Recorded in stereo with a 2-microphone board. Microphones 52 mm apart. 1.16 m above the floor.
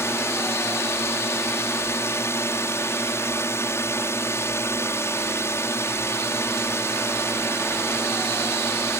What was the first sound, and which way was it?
A drone, 60° left (ahead or behind).